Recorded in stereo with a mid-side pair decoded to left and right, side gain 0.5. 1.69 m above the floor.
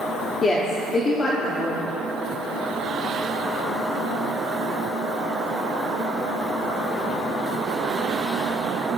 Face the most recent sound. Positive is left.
turn(degrees=40)